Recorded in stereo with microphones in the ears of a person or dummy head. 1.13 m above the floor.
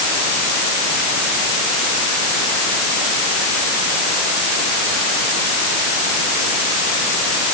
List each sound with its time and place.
Only background noise.